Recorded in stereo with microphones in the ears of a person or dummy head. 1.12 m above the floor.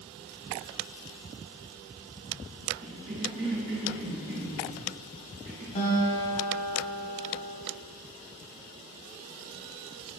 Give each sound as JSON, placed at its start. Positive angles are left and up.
{"t": 2.8, "sound": "a cough", "side_deg": -30, "distance_m": 4.5}
{"t": 5.8, "sound": "a guitar", "side_deg": 40, "distance_m": 3.0}